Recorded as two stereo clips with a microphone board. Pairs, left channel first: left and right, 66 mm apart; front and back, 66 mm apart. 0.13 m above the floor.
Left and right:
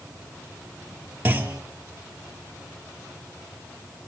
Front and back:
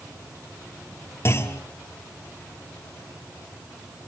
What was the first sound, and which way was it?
A clunk, 30° right.